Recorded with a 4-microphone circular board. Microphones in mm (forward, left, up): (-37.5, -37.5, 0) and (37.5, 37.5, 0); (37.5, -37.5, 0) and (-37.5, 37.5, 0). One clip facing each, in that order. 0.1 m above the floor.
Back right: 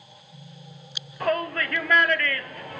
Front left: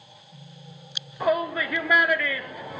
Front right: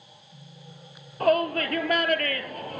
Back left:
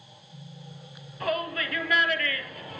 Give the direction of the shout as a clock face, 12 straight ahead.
1 o'clock.